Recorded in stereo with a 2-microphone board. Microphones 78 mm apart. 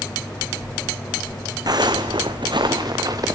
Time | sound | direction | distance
1.7 | footsteps | 55° right (ahead or behind) | 1.4 m